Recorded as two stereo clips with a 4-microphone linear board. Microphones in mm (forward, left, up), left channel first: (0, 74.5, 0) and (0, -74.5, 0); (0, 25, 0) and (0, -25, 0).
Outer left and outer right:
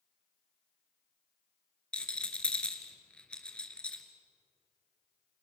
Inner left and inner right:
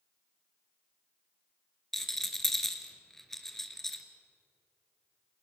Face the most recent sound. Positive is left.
turn(degrees=5)  # may be behind; listen again after turning